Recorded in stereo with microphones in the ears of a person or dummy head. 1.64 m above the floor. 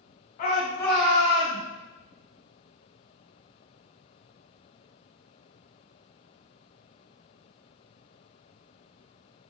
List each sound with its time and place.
0.4 s a shout: 45° left (ahead or behind), 0.8 m; by 1.6 s 45° right (ahead or behind), 1.0 m